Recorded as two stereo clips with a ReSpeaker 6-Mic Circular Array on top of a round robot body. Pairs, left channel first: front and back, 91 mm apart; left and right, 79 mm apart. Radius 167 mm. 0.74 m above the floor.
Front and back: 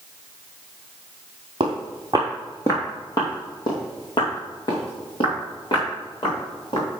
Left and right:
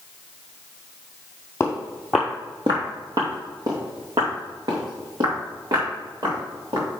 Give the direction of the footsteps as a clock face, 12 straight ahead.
7 o'clock.